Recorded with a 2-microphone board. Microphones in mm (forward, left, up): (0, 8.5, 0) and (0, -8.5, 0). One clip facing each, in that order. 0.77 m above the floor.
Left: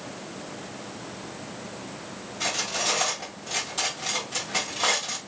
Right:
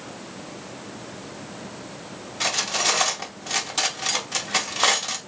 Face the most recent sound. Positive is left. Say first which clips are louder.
# right 4 dB
turn(degrees=-35)  # may be behind; listen again after turning